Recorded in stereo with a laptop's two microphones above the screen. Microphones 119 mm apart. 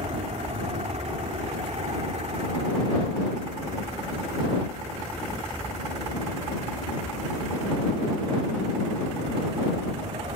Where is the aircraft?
55° right (ahead or behind); by 10.4 s 45° right (ahead or behind).